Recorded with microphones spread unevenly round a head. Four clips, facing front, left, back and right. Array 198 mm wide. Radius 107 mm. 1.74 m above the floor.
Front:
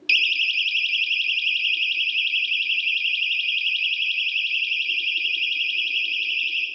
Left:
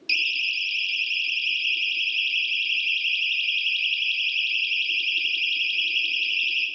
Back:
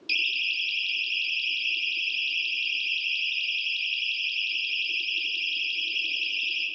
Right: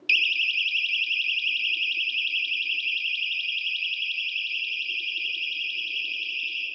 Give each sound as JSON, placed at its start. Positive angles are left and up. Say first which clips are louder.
{"t": 0.1, "sound": "a siren", "louder": "right 2 dB, front 7 dB", "azimuth_deg": 20, "distance_m": 4.0}